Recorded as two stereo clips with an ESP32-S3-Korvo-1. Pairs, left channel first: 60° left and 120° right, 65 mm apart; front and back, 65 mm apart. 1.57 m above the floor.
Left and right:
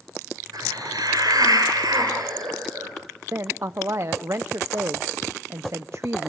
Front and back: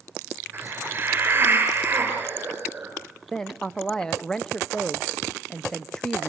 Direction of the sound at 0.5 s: 125° right.